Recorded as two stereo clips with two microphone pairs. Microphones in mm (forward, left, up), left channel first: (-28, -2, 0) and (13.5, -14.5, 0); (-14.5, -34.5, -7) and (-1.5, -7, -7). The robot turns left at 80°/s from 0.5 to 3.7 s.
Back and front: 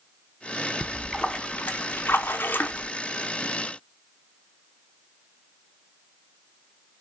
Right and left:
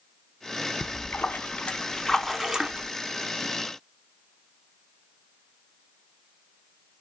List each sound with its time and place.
0.8 s a splash: 90° right, 0.8 m; by 2.9 s 105° left, 0.8 m